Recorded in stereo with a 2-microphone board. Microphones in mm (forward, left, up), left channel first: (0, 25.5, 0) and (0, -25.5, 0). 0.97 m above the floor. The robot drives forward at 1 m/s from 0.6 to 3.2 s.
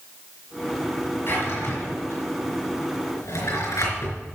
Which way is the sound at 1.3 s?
50° left (ahead or behind).